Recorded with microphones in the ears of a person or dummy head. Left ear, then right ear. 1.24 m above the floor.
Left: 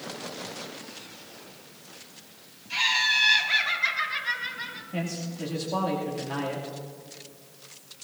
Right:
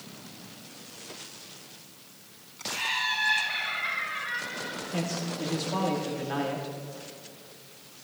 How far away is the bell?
No bell in this recording.